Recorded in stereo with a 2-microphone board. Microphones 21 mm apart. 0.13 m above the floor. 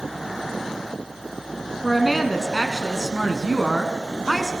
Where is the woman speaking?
Centre (ahead or behind), 1.1 m.